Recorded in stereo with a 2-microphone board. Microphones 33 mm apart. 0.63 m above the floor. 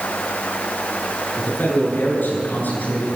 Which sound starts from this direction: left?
A man speaking, at 1.4 s.